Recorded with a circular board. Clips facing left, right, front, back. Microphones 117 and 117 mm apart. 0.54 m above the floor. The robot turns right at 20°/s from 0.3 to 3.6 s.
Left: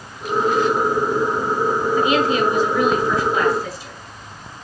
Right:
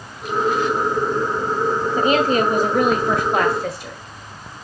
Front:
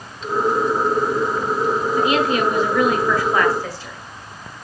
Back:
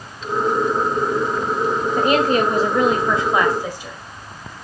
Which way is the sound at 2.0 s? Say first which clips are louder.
Right 2 dB, back 3 dB; 140° right.